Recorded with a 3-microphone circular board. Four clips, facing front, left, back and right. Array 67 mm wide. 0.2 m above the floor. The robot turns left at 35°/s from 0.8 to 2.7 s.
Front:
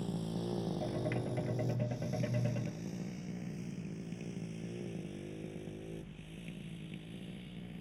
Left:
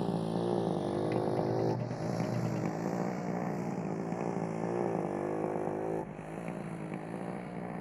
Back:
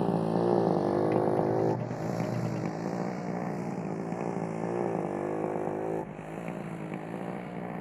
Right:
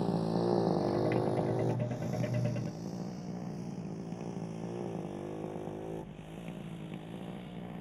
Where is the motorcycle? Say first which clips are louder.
Right 1 dB, back 12 dB; straight behind; by 7.8 s 160° left.